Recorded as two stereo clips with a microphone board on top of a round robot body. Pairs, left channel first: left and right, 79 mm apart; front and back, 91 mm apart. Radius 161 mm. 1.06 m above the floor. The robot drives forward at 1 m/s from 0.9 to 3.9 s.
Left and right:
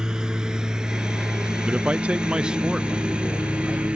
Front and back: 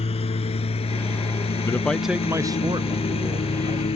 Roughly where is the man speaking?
Ahead right.